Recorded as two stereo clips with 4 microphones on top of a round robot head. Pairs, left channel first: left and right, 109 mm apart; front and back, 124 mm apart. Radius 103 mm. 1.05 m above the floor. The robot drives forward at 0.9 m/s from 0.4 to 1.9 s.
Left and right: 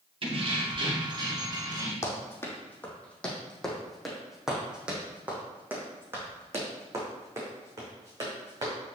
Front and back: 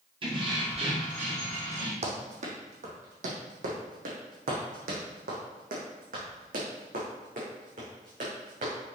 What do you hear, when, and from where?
0.2 s keys jangling: 125° right, 2.0 m; by 1.9 s 145° right, 3 m
2.0 s running footsteps: 150° left, 3.5 m; by 8.7 s 145° right, 6 m